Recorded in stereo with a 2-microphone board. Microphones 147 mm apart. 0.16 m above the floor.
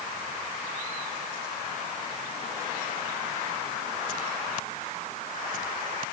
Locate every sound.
Only background noise.